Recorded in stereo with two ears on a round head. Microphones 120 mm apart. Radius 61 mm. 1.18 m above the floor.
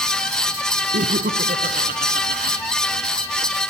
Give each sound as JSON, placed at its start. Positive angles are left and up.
{"t": 0.9, "sound": "laughter", "side_deg": -75}